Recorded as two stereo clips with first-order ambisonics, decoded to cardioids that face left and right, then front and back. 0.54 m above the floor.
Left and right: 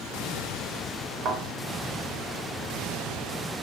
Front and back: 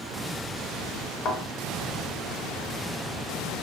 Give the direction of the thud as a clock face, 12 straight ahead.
1 o'clock.